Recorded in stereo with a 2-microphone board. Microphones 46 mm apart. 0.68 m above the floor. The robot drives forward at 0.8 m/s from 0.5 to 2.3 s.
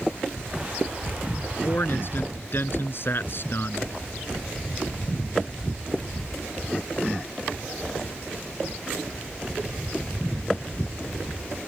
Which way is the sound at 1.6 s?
50° left (ahead or behind).